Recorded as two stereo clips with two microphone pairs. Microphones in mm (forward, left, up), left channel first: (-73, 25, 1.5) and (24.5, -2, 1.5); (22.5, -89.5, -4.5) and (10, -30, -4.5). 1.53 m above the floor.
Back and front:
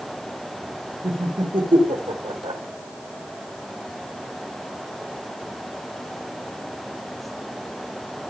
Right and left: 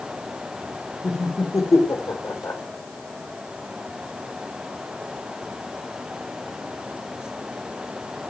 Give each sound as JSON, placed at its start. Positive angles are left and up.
{"t": 1.0, "sound": "laughter", "azimuth_deg": -50, "distance_m": 5.5}